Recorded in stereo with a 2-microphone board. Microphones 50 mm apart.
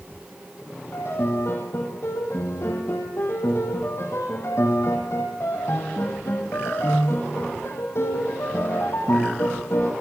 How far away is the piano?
About 4.5 m.